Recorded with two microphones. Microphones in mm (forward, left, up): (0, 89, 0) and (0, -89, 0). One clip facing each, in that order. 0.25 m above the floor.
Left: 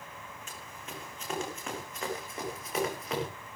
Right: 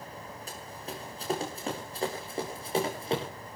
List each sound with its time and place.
0.5 s running footsteps: 35° right (ahead or behind), 8 m; by 3.3 s 30° right (ahead or behind), 10 m